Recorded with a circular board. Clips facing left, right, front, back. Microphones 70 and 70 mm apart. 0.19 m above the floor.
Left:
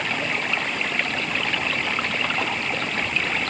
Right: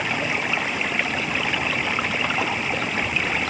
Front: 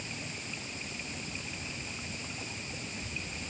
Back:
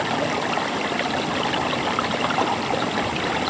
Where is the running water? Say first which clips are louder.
Right 1 dB, back 20 dB; 175° right.